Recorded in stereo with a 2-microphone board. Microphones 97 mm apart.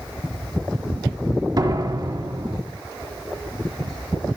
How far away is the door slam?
About 4 m.